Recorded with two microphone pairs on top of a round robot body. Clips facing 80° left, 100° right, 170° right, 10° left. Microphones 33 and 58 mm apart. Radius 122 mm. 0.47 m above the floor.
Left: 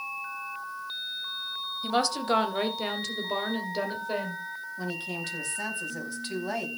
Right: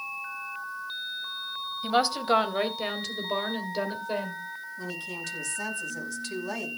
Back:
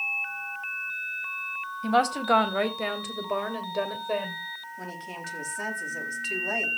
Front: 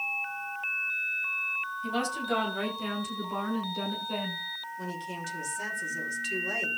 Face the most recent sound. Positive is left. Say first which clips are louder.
# left 3 dB, front 3 dB
turn(degrees=135)